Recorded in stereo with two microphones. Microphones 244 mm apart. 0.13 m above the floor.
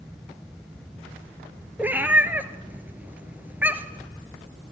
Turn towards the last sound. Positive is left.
turn(degrees=-5)  # may be behind; listen again after turning